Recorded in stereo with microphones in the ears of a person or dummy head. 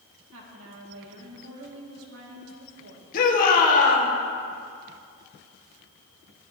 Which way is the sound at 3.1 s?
45° left (ahead or behind).